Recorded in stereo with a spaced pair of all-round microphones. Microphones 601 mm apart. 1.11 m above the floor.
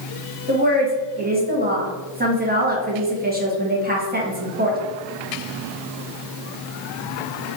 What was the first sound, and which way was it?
A woman speaking, 15° right (ahead or behind).